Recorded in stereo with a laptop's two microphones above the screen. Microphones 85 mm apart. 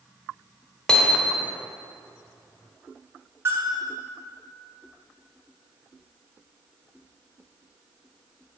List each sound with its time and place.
0.9 s hammering: 10° left (ahead or behind), 1.2 m
3.5 s a bell: 30° right (ahead or behind), 3.5 m